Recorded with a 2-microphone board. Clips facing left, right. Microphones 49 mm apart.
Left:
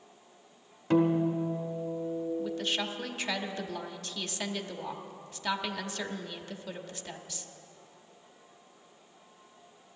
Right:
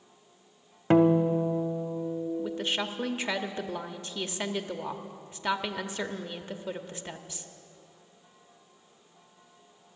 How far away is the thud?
No thud in this recording.